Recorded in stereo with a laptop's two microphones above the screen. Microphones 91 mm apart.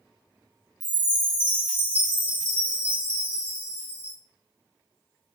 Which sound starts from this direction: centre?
A chime, at 0.8 s.